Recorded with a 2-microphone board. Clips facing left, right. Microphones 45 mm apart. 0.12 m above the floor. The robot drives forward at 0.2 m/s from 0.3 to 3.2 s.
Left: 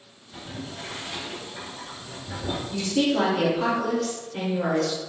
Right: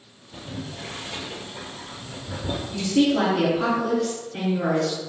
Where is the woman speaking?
15° right (ahead or behind), 1.5 m.